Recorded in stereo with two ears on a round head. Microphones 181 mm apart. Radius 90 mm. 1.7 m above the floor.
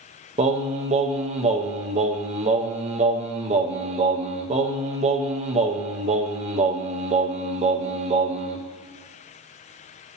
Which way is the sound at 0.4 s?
30° right (ahead or behind).